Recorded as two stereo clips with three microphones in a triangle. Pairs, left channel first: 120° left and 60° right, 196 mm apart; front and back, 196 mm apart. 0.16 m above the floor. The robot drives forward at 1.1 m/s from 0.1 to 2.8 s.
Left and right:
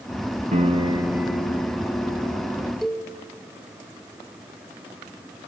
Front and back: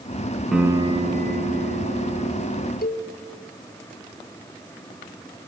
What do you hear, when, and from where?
0.5 s a piano: 90° right, 0.9 m; by 2.7 s 165° right, 2.5 m
2.8 s a cowbell: 30° left, 2.0 m